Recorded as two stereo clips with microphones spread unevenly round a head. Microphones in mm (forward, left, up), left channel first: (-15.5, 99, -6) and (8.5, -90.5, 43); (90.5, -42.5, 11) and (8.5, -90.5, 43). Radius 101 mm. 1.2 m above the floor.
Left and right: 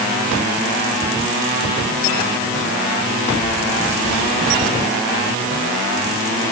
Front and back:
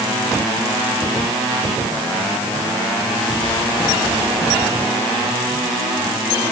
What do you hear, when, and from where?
Only background noise.